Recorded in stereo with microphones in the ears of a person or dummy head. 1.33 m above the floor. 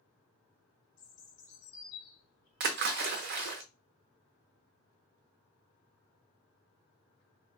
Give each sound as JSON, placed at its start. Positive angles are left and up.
{"t": 1.0, "sound": "a bird", "side_deg": 50, "distance_m": 1.7}
{"t": 2.6, "sound": "a splash", "side_deg": -50, "distance_m": 0.5}